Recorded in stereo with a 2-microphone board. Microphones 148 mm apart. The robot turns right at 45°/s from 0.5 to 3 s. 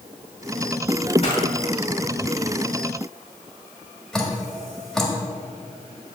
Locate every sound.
1.2 s a pop: 45° left (ahead or behind), 2 m; by 1.4 s 40° left (ahead or behind), 2 m
4.1 s dripping: 5° left (ahead or behind), 1.5 m